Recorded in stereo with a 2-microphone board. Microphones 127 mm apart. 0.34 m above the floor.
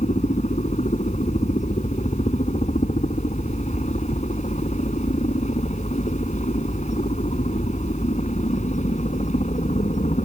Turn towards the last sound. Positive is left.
turn(degrees=65)  # may be behind; listen again after turning